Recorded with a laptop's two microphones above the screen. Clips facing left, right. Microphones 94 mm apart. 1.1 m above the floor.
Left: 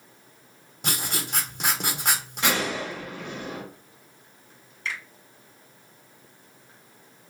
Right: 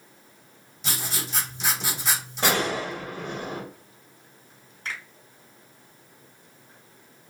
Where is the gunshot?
45° right (ahead or behind), 0.9 m.